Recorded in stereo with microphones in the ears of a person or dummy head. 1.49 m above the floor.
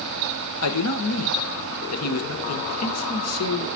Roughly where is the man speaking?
Left.